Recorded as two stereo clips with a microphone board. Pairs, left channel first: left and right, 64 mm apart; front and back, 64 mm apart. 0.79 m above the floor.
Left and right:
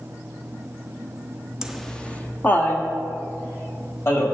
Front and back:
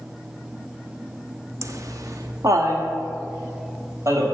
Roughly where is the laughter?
Behind.